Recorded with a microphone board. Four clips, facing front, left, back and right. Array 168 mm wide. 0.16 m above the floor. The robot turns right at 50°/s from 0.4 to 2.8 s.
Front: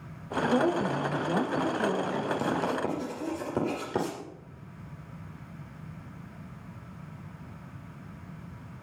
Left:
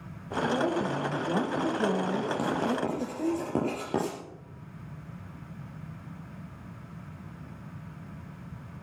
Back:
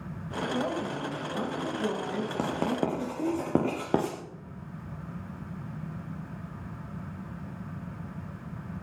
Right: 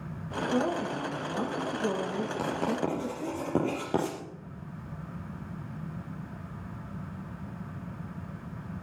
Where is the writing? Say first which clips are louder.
Left 1 dB, even; 160° left, 6.5 m; by 4.2 s straight behind, 6.5 m.